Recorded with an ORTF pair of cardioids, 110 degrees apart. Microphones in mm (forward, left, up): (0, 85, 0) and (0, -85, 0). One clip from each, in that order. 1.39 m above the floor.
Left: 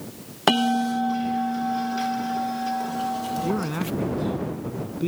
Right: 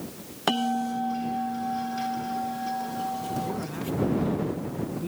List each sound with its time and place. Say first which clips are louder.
0.5 s a bell: left 5 dB; 35° left
3.4 s a man speaking: left 5 dB; 55° left